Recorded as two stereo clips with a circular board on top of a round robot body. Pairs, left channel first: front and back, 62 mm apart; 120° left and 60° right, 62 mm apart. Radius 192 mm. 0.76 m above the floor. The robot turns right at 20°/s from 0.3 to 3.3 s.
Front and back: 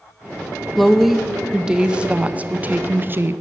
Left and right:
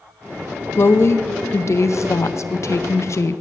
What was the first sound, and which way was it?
A woman speaking, 85° left.